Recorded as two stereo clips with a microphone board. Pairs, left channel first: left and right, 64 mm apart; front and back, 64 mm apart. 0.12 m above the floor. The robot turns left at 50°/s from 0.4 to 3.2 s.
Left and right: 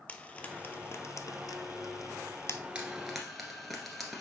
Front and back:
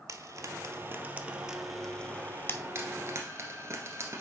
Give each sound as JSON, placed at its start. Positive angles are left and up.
{"t": 0.1, "sound": "frying", "azimuth_deg": 155, "distance_m": 0.6}
{"t": 2.8, "sound": "frying", "azimuth_deg": -160, "distance_m": 1.5}